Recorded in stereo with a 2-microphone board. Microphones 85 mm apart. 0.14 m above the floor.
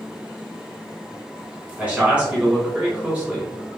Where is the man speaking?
15° right (ahead or behind), 1.1 m.